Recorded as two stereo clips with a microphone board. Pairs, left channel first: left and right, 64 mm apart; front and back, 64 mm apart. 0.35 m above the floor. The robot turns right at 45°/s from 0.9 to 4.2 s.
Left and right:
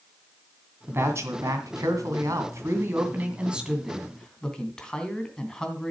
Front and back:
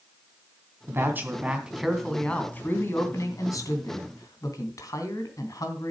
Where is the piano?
I don't hear a piano.